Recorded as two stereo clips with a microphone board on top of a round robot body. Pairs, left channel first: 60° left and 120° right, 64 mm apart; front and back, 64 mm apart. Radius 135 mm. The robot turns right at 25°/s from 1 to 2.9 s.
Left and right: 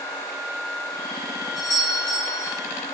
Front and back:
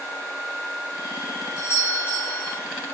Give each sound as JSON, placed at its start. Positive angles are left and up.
{"t": 1.6, "sound": "a doorbell", "azimuth_deg": 45, "distance_m": 4.5}